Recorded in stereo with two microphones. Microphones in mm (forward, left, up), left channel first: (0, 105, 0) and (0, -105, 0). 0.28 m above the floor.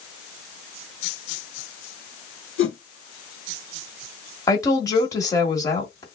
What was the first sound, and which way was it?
A whoosh, 75° left (ahead or behind).